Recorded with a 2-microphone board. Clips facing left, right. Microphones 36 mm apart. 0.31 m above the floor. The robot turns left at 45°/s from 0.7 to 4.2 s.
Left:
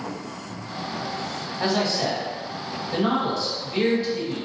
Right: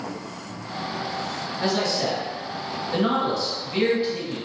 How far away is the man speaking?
About 1.4 m.